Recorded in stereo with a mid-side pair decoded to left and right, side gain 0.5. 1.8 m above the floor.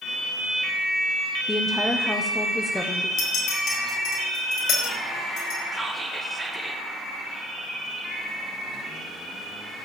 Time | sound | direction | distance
1.5 | a woman speaking | 15° left | 1.2 m
3.2 | a clink | 60° left | 4.5 m
5.7 | whispering | 10° right | 1.3 m